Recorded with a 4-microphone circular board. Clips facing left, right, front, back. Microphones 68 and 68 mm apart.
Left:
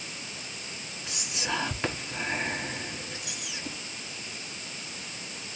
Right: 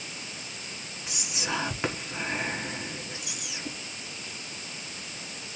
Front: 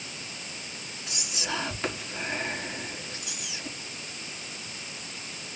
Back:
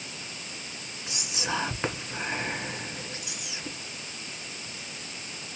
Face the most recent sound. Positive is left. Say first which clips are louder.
# even, back 2 dB
turn(degrees=-150)